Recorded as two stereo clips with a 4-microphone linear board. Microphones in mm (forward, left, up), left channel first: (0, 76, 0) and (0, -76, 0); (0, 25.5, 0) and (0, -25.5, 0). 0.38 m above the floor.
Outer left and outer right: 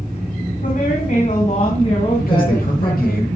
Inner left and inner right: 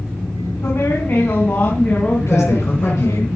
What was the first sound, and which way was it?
A woman speaking, 65° left (ahead or behind).